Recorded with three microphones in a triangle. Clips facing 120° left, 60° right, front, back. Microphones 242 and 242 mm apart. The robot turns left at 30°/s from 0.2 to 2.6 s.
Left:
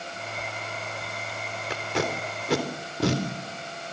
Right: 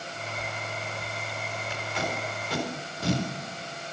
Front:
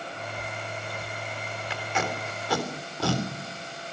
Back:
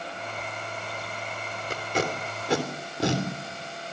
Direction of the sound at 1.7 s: 135° left.